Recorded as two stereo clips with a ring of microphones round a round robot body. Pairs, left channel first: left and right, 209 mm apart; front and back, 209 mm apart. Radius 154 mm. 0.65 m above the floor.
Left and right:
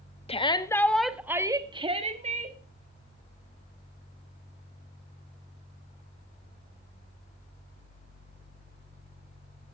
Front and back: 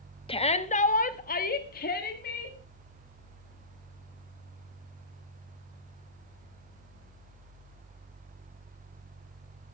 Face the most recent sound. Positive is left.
turn(degrees=-45)